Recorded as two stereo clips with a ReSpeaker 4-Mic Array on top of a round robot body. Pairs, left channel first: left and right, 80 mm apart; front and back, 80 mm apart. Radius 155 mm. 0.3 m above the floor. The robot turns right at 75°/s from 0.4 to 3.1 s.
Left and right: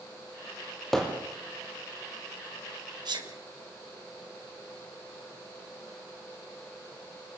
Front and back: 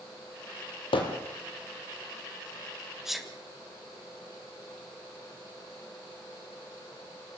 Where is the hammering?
5° left, 3 m; by 1.2 s 25° left, 3 m.